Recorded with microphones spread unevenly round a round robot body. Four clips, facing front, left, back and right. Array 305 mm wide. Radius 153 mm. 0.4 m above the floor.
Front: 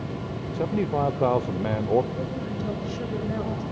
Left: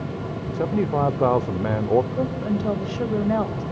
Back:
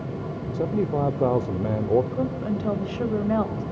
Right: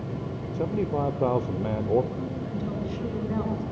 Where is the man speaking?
150° left, 0.8 m.